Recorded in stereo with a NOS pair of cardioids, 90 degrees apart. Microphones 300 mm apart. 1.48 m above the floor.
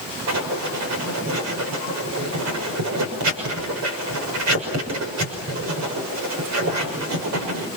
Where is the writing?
70° right, 6 m.